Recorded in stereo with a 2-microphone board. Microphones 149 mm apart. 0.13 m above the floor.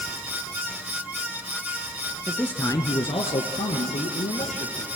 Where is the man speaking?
Centre (ahead or behind), 1.2 m; by 4.9 s 65° left (ahead or behind), 3.5 m.